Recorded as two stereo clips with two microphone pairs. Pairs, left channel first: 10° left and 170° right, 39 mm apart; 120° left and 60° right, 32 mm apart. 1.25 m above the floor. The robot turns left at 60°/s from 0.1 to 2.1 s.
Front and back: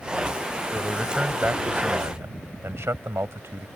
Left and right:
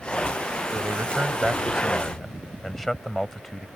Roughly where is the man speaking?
Right.